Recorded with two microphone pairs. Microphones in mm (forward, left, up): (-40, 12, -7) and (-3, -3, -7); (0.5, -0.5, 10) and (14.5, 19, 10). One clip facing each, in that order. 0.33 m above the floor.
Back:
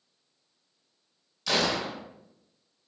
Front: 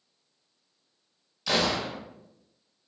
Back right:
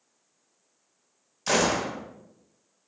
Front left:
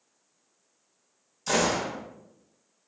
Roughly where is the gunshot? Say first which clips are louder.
Front 1 dB, back right 1 dB; right.